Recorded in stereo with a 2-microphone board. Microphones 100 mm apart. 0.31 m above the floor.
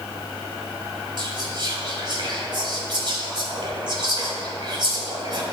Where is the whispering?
50° right (ahead or behind), 1.9 m.